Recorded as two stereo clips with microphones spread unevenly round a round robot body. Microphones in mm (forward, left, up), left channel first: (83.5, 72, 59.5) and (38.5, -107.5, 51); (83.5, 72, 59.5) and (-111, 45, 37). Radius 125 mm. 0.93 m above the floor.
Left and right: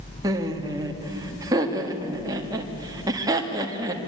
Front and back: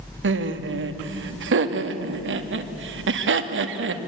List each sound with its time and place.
0.2 s laughter: 175° right, 1.8 m